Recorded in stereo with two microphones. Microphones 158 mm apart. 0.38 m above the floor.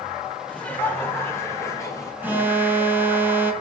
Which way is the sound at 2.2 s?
15° right (ahead or behind).